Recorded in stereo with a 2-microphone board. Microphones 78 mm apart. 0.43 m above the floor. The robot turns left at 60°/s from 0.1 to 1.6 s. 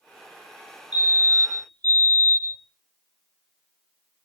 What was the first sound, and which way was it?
A fire alarm, 25° right.